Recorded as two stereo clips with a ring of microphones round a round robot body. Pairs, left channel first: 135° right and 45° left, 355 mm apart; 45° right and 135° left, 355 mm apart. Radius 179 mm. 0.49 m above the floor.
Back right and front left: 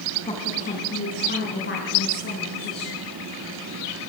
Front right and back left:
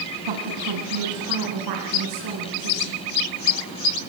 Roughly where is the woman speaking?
Behind left.